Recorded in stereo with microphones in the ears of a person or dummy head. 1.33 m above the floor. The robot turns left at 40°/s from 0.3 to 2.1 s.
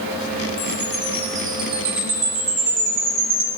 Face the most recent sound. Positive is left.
turn(degrees=-40)